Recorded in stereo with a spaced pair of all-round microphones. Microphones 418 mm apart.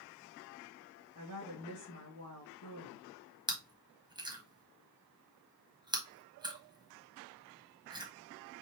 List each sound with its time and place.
1.1 s a woman speaking: 55° left (ahead or behind), 2.0 m
3.5 s chewing: 10° right (ahead or behind), 1.1 m